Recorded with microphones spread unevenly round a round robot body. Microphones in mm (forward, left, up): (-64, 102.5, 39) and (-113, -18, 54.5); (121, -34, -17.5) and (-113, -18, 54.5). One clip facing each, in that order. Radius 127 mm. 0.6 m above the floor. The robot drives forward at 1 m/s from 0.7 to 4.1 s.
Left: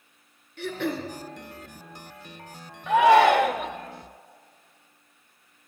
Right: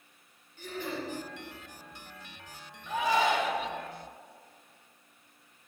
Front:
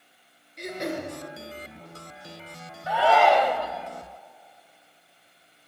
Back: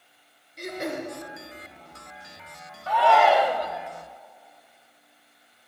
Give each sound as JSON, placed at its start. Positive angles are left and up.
{"t": 0.6, "sound": "throat clearing", "azimuth_deg": 85, "distance_m": 4.0}
{"t": 2.9, "sound": "a shout", "azimuth_deg": 70, "distance_m": 1.8}